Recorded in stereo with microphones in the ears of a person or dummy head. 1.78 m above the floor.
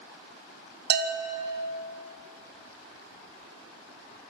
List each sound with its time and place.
0.9 s a bell: 65° right (ahead or behind), 1.9 m